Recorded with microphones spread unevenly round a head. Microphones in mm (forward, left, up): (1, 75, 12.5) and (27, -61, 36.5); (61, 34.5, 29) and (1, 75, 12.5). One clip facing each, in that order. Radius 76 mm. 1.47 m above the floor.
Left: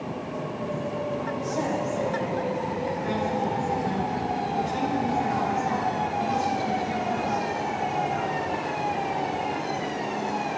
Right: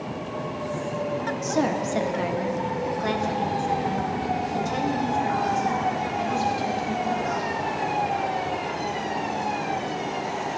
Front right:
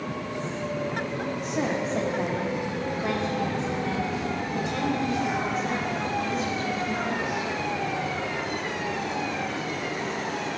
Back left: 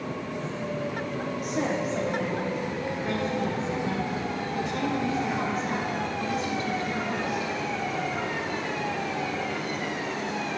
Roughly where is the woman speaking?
Behind right.